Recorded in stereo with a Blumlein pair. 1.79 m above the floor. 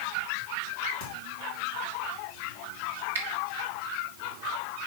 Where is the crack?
50° left, 3 m.